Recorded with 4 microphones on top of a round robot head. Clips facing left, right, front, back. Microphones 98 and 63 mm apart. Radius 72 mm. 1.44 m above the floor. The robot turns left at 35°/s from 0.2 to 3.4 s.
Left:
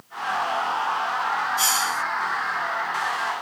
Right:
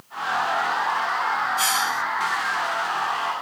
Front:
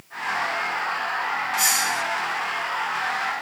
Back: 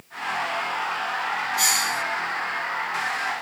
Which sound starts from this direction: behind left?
A hiss, at 1.6 s.